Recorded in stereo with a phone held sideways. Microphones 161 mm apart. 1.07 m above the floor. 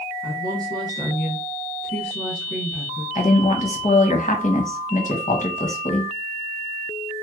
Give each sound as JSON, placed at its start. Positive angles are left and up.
{"t": 0.2, "sound": "a woman speaking", "side_deg": 85, "distance_m": 1.3}
{"t": 3.1, "sound": "a woman speaking", "side_deg": 50, "distance_m": 0.9}